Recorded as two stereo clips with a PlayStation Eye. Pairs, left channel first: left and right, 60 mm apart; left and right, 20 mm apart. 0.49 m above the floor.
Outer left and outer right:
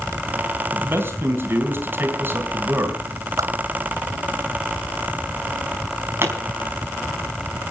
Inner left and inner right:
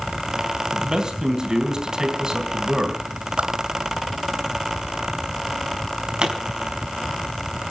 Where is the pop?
45° right (ahead or behind), 5 m.